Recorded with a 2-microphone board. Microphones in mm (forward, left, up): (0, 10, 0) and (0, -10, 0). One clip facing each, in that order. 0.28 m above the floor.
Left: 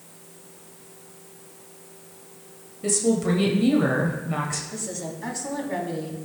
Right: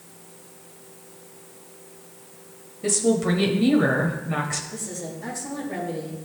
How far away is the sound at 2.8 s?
About 1.1 m.